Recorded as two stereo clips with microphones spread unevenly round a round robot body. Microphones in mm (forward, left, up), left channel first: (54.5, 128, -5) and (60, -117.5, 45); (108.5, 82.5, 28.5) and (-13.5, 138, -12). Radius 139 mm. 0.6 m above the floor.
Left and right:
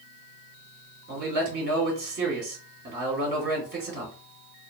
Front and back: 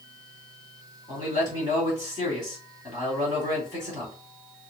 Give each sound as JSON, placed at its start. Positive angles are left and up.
{"t": 1.1, "sound": "a man speaking", "azimuth_deg": -145, "distance_m": 2.0}